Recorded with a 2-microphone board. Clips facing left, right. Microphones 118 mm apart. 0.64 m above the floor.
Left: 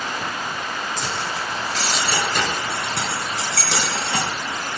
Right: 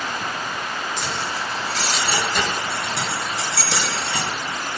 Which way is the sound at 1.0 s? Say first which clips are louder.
Even; 45° left (ahead or behind).